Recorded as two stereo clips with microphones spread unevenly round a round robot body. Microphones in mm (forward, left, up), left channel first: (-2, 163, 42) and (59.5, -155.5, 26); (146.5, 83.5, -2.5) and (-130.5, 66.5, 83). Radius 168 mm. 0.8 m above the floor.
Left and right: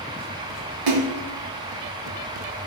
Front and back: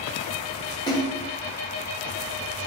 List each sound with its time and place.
0.9 s a splash: 70° right, 2 m